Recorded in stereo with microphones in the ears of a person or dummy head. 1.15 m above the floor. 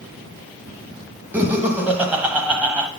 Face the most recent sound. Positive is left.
turn(degrees=-10)  # may be behind; listen again after turning